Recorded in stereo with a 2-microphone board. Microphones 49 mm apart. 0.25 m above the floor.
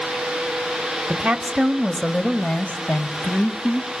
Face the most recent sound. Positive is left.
turn(degrees=55)  # may be behind; listen again after turning